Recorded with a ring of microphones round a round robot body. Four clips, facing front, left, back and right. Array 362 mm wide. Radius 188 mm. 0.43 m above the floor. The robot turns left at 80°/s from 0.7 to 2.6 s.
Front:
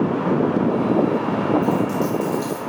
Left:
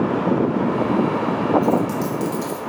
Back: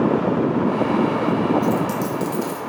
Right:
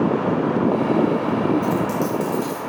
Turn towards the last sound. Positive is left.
turn(degrees=125)